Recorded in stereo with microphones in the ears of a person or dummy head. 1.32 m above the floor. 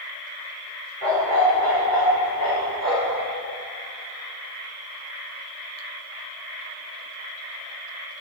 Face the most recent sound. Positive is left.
turn(degrees=-30)  # may be behind; listen again after turning